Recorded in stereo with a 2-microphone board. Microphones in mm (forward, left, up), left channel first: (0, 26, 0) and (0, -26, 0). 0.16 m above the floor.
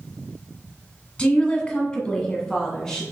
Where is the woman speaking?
15° left (ahead or behind), 1.2 m; by 3.0 s 10° left (ahead or behind), 1.3 m.